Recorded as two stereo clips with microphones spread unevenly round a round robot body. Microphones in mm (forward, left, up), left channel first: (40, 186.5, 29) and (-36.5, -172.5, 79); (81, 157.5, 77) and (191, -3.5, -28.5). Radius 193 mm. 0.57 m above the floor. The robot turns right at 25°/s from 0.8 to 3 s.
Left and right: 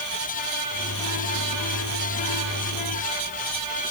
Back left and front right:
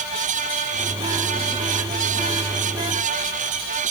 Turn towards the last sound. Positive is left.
No sound to turn to.